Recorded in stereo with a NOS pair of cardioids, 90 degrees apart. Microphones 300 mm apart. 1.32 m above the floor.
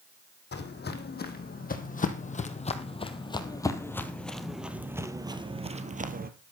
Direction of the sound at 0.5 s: 35° left.